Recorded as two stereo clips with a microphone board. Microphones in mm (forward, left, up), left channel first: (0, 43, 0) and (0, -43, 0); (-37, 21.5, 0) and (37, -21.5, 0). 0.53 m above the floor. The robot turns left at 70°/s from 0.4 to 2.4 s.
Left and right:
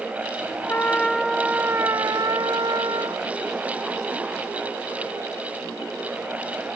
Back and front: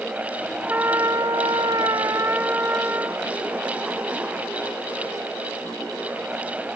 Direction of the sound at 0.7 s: 35° left.